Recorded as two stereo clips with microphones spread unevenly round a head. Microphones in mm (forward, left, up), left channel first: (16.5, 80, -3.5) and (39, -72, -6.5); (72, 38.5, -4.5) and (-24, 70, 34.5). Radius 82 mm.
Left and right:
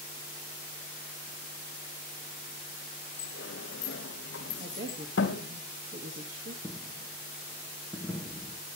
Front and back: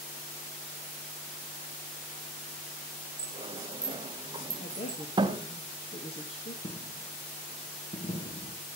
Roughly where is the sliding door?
Behind left.